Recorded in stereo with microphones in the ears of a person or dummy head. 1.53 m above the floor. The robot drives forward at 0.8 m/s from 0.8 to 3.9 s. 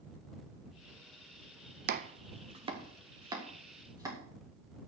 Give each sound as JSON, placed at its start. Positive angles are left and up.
{"t": 1.9, "sound": "chopping", "side_deg": -40, "distance_m": 0.6}